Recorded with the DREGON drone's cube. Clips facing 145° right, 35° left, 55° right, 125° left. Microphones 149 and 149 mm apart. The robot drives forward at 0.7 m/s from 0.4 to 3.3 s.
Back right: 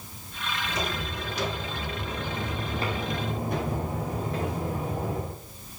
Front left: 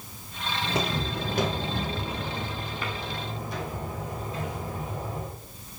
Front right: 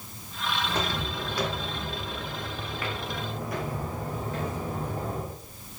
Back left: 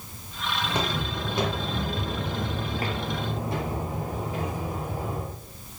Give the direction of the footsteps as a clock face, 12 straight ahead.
10 o'clock.